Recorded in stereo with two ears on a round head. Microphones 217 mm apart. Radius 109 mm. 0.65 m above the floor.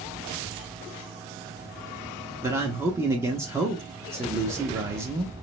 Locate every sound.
2.4 s a man speaking: 10° right (ahead or behind), 0.6 m